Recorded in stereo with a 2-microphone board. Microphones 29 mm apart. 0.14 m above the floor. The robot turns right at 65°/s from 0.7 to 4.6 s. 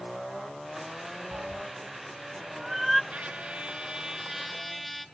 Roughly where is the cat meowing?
Right.